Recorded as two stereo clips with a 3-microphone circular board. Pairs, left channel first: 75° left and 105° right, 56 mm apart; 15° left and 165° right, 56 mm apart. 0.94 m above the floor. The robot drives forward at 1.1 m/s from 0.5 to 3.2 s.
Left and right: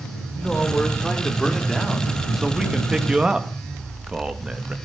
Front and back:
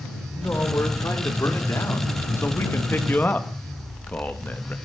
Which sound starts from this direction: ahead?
A man speaking, at 0.3 s.